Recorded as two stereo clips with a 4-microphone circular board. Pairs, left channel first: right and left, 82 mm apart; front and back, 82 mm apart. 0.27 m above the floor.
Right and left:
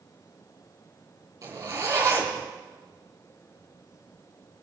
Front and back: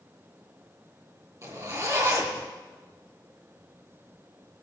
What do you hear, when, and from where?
1.4 s a zipper: 135° left, 3.5 m